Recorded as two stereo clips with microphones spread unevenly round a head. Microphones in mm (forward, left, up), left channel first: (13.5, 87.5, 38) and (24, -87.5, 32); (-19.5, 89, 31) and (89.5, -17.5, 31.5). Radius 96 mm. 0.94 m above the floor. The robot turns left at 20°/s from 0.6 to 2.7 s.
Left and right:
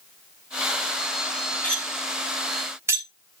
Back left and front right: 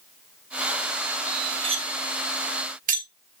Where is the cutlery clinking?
10° left, 2.5 m; by 3.0 s 10° right, 2.5 m.